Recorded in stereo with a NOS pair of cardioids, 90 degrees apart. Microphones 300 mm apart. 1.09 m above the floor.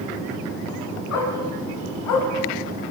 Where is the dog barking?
55° left, 5 m; by 2.3 s 70° left, 5 m.